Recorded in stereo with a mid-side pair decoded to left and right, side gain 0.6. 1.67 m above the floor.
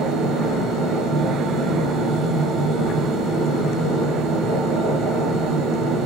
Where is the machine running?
50° right, 1.4 m.